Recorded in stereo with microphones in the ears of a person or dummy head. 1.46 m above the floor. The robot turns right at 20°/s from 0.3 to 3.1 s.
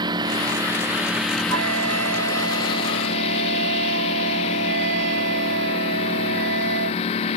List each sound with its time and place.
0.0 s a lawn mower: 25° right; by 7.4 s 35° left
1.5 s a flute: 95° right; by 7.0 s 65° right